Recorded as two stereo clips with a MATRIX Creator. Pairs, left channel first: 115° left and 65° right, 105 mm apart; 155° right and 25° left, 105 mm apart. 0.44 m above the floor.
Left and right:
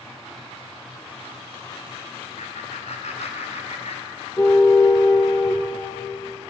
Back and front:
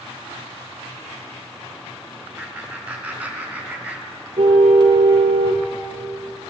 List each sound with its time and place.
2.4 s laughter: 100° left, 5 m
4.4 s a car horn: 55° left, 3.5 m